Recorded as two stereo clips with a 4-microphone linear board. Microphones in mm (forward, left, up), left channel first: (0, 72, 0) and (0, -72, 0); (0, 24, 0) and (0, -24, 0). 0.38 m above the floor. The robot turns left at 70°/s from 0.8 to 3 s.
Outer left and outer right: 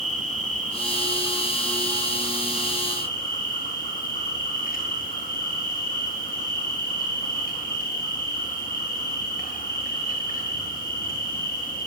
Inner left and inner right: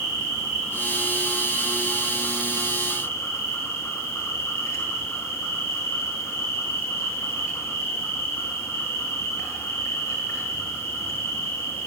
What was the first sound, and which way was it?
An insect, 120° right.